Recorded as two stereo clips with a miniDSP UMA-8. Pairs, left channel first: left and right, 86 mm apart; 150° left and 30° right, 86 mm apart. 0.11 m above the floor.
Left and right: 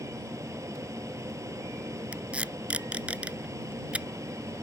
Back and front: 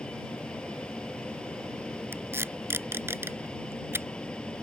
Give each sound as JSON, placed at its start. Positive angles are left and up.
{"t": 0.0, "sound": "an aircraft", "azimuth_deg": -135}
{"t": 2.1, "sound": "tape being pulled", "azimuth_deg": -30}